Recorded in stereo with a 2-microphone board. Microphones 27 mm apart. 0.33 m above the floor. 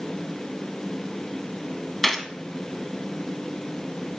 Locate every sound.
2.0 s a gunshot: 10° left (ahead or behind), 0.9 m